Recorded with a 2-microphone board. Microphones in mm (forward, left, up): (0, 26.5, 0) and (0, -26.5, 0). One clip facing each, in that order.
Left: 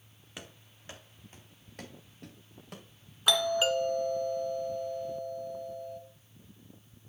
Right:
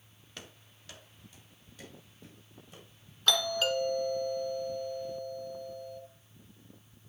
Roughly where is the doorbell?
Centre.